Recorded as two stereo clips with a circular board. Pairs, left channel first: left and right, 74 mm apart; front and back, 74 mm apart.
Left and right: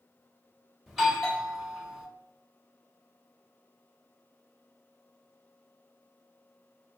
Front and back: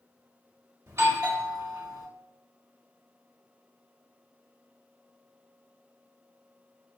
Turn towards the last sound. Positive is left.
turn(degrees=-175)